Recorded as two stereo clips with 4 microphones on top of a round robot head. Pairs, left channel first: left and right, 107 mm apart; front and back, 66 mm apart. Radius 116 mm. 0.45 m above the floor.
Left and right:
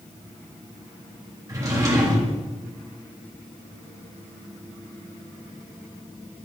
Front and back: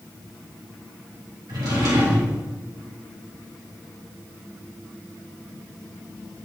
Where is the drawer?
145° right, 3 m.